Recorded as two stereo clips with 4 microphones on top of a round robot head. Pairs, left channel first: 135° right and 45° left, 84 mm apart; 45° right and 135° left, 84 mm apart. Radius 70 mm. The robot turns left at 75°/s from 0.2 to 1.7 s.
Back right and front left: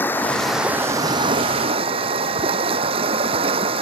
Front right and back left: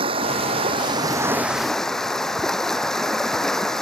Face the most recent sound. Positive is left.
turn(degrees=40)